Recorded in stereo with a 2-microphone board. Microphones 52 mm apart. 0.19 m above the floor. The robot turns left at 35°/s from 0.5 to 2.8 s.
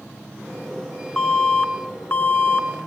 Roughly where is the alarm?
Behind.